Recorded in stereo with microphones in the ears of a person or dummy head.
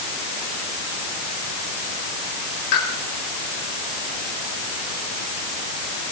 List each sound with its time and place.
2.7 s a pop: 60° left (ahead or behind), 4 m